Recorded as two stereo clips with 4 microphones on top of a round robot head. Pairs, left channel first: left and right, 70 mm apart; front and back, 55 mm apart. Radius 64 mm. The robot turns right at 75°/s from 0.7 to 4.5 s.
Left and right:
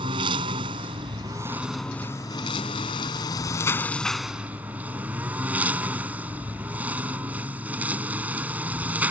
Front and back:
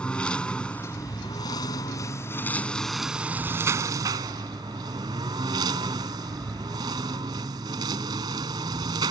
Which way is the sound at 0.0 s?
80° right.